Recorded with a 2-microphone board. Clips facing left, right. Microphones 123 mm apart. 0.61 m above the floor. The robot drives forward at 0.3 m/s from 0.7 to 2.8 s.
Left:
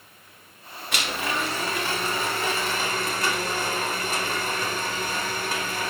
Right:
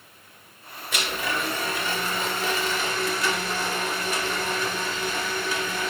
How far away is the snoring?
I don't hear snoring.